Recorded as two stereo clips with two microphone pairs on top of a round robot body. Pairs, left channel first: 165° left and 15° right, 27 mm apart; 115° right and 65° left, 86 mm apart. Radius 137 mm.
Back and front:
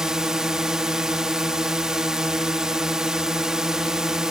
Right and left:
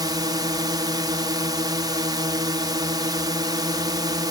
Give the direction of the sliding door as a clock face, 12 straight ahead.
I don't hear a sliding door.